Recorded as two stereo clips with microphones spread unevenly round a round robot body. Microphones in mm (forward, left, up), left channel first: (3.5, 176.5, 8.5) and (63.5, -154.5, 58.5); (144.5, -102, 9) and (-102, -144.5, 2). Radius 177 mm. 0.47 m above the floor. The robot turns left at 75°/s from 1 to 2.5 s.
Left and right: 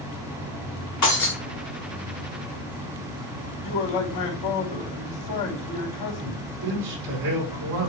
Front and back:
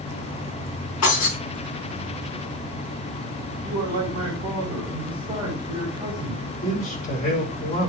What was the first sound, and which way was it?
Breaking glass, 65° left.